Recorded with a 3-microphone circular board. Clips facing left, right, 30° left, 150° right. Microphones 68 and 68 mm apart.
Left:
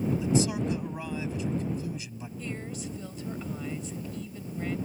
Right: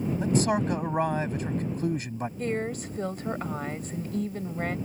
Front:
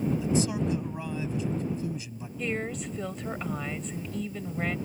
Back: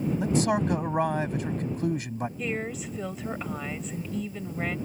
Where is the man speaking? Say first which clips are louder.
Right 2 dB, back 3 dB; 125° right.